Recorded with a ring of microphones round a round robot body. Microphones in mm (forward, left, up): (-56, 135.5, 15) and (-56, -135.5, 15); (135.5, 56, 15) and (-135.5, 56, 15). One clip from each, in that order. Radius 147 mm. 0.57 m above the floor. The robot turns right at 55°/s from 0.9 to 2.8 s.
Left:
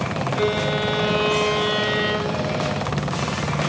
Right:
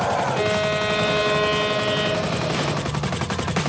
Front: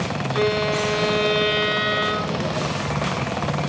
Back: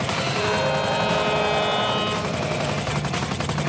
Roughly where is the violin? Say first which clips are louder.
Right 1 dB, front 3 dB; ahead right.